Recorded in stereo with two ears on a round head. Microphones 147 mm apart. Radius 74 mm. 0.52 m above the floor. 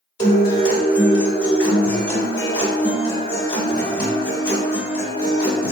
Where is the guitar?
30° left (ahead or behind), 1.3 m.